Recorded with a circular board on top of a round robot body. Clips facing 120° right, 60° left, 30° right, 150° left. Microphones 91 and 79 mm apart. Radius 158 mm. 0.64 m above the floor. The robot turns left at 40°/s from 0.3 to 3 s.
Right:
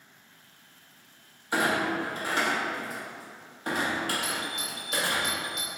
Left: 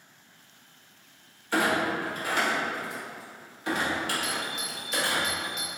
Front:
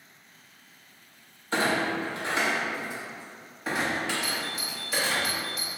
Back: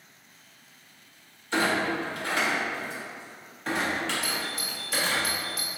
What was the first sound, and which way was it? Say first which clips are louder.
A clunk: left 1 dB, even; 50° right.